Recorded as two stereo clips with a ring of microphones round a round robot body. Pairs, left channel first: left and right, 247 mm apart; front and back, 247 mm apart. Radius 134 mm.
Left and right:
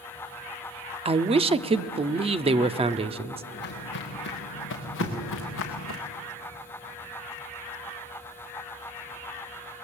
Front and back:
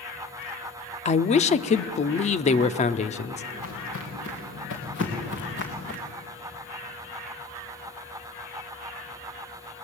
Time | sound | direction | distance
1.1 | a man speaking | 40° right | 0.8 m
3.5 | footsteps | 45° left | 4 m
5.0 | knocking | 85° right | 5.5 m